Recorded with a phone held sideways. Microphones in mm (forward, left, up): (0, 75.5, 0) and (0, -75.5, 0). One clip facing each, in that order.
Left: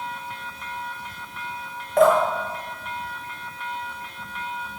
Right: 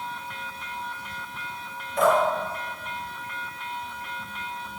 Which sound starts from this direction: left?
Dripping, at 2.0 s.